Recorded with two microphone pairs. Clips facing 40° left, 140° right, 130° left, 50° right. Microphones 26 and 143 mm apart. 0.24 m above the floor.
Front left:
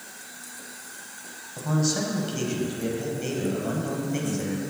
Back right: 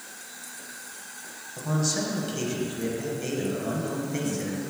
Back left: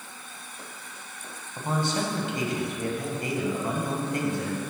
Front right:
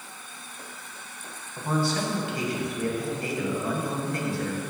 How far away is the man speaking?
About 1.0 m.